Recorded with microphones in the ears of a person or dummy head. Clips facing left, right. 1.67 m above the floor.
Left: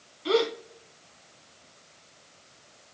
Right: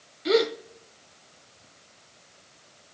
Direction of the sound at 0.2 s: 20° right (ahead or behind).